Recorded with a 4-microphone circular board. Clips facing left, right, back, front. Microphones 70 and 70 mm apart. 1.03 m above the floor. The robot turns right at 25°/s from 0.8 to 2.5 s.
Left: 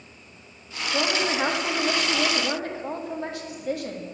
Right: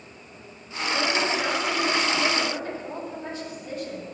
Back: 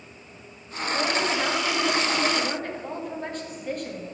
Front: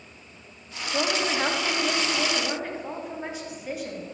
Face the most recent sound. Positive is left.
turn(degrees=85)